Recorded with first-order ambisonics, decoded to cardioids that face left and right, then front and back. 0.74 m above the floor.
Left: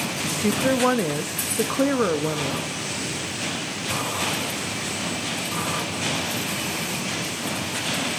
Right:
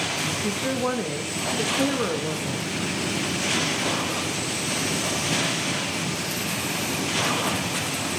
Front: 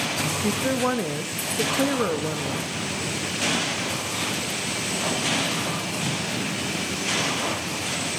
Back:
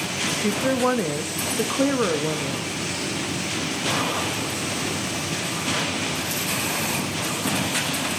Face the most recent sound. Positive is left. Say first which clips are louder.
# left 3 dB, back 2 dB
turn(degrees=110)